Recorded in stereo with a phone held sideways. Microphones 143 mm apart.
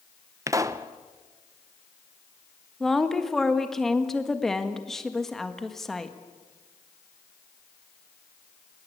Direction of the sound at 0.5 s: 25° right (ahead or behind).